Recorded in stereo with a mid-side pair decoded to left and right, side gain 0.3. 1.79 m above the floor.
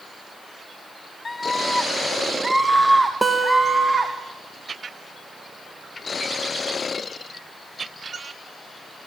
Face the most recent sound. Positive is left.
turn(degrees=-30)